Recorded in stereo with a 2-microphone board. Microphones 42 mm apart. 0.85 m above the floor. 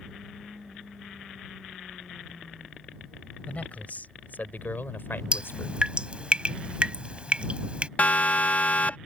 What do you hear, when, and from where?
3.5 s a man speaking: 35° left (ahead or behind); by 5.8 s 70° left (ahead or behind)
5.3 s dripping: 25° right (ahead or behind)
8.0 s a siren: 40° left (ahead or behind)